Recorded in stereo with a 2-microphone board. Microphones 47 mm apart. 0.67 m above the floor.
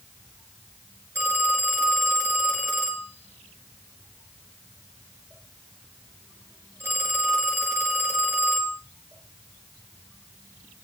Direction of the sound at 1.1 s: 60° right (ahead or behind).